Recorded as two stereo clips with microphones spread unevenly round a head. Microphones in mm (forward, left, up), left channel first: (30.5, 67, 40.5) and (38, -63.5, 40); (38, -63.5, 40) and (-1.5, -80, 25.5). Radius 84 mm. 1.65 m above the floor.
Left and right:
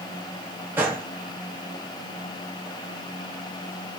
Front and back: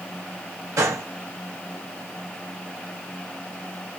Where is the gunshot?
165° right, 0.6 m.